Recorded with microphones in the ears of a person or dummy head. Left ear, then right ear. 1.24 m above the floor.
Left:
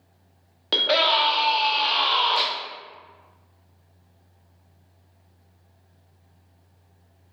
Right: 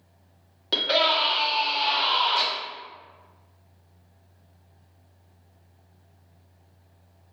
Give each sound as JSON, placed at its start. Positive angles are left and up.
{"t": 0.7, "sound": "a scream", "side_deg": 20, "distance_m": 0.9}